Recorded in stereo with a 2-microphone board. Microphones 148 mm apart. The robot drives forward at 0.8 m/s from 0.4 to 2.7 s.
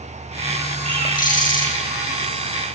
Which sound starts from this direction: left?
A bird, at 0.8 s.